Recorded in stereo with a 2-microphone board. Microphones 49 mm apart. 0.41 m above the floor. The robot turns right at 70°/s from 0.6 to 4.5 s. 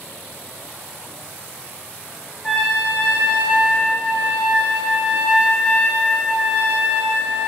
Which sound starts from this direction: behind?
A trumpet, at 2.4 s.